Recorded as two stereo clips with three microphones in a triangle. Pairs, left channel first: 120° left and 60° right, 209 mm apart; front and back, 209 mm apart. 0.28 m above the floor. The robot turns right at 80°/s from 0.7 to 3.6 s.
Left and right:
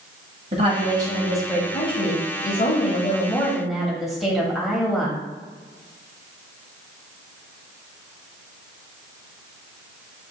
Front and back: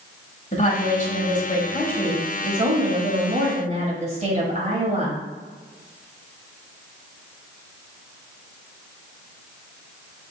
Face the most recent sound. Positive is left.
turn(degrees=-150)